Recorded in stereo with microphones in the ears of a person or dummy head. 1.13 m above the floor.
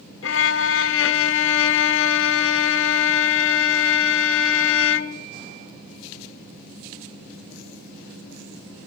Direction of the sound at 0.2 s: 65° left (ahead or behind).